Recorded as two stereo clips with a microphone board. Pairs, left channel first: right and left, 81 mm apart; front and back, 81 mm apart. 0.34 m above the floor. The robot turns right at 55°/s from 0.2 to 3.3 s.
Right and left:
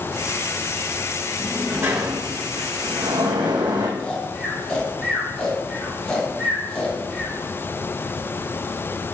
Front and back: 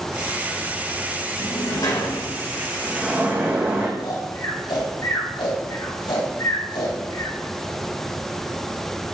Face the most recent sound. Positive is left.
turn(degrees=-10)